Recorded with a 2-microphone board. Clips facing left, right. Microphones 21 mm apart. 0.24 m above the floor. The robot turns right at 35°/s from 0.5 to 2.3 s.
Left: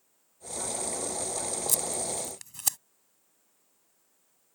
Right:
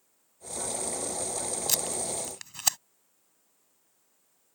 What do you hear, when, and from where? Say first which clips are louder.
1.7 s tape being pulled: right 4 dB; 40° right (ahead or behind); by 2.8 s 30° right (ahead or behind)